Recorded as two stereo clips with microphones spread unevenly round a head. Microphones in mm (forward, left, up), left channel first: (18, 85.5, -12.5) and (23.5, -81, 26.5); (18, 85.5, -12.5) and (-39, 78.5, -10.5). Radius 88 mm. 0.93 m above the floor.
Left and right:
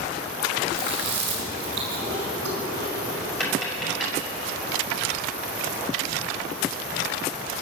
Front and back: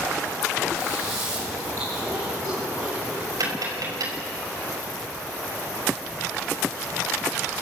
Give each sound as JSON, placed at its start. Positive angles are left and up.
{"t": 0.7, "sound": "chewing", "azimuth_deg": -110, "distance_m": 6.0}
{"t": 3.4, "sound": "tapping", "azimuth_deg": 180, "distance_m": 6.0}